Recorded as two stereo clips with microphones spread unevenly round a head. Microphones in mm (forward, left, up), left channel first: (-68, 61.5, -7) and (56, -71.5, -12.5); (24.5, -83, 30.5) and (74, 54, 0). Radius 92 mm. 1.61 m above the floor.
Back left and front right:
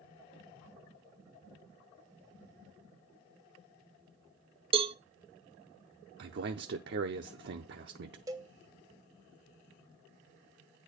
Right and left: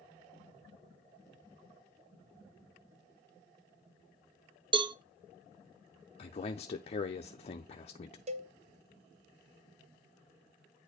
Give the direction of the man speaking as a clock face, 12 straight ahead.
2 o'clock.